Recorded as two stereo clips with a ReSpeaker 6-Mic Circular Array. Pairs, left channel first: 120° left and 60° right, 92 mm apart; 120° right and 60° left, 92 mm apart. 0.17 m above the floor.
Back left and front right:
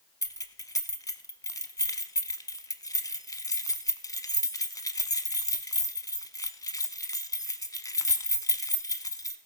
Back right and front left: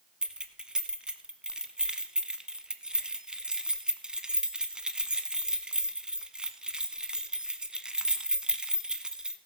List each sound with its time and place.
0.2 s keys jangling: 135° left, 0.9 m